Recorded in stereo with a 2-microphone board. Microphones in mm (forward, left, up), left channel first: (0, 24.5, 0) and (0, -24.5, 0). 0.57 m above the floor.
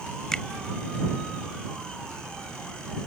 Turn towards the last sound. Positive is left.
turn(degrees=15)  # may be behind; listen again after turning